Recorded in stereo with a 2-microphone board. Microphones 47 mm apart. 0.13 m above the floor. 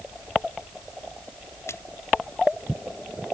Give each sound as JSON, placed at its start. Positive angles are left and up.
{"t": 1.7, "sound": "a splash", "side_deg": 65}